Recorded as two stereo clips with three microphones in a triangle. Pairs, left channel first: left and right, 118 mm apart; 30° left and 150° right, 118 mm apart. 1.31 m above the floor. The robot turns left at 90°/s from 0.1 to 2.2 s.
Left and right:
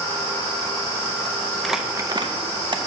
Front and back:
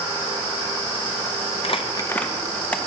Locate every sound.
1.6 s crumpling: 5° left, 0.6 m; by 2.8 s 45° right, 0.6 m